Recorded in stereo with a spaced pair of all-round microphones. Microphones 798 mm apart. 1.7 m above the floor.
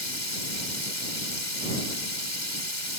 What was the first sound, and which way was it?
Running water, 65° left (ahead or behind).